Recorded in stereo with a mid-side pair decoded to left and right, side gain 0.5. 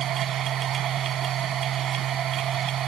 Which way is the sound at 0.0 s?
55° right.